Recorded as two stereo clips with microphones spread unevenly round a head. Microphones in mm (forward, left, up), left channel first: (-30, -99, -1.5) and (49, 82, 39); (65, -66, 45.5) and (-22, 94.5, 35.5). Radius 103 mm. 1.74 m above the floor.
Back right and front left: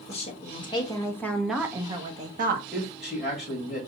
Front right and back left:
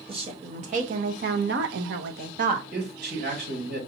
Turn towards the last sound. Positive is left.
turn(degrees=155)